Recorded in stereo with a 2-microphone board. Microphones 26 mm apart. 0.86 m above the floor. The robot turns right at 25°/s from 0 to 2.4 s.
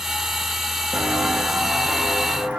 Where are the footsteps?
55° right (ahead or behind), 2.5 m; by 2.6 s 65° right (ahead or behind), 3 m.